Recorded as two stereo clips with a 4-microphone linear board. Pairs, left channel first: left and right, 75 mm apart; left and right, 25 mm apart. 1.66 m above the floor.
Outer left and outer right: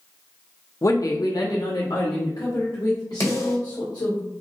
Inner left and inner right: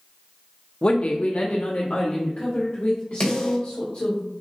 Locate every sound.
0.8 s a woman speaking: 40° left (ahead or behind), 0.5 m; by 4.2 s 60° left (ahead or behind), 2.5 m
3.2 s a snare drum: 45° left (ahead or behind), 1.8 m